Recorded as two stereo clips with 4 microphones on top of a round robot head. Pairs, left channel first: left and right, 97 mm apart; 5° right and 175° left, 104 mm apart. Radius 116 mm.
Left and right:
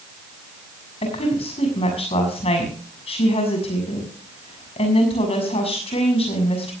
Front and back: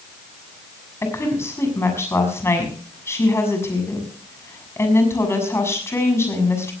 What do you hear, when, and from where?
1.0 s a woman speaking: 60° left, 7 m